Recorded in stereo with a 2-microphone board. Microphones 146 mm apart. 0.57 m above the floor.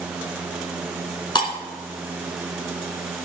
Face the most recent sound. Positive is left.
turn(degrees=35)  # may be behind; listen again after turning